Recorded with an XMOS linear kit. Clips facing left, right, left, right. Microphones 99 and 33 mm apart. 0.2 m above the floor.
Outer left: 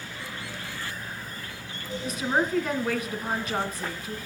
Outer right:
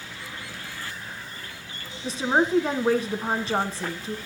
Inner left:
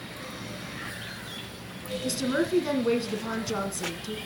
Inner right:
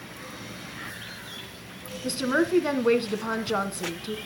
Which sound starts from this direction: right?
A woman speaking, at 2.0 s.